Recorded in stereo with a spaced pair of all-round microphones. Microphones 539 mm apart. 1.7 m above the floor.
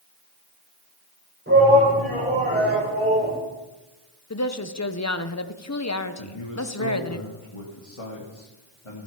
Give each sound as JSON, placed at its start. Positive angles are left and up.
{"t": 1.5, "sound": "a shout", "side_deg": -20, "distance_m": 9.0}
{"t": 4.3, "sound": "a woman speaking", "side_deg": 30, "distance_m": 0.9}
{"t": 6.2, "sound": "a man speaking", "side_deg": 70, "distance_m": 2.0}